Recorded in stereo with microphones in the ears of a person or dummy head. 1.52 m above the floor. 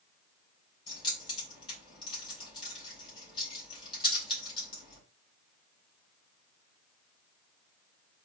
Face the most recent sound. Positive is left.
turn(degrees=30)  # may be behind; listen again after turning